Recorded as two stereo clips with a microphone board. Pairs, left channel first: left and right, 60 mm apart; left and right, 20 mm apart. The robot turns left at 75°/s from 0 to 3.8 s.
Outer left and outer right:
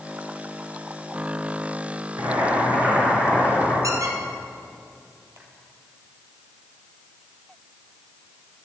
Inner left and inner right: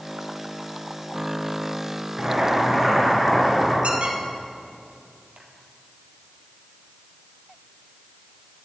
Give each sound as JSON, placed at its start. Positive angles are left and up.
{"t": 2.2, "sound": "boiling", "azimuth_deg": -100, "distance_m": 5.0}
{"t": 3.8, "sound": "a squeak", "side_deg": -65, "distance_m": 2.0}